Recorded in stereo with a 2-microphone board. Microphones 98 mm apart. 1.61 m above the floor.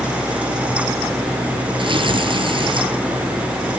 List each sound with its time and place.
1.8 s tearing paper: 60° right (ahead or behind), 8 m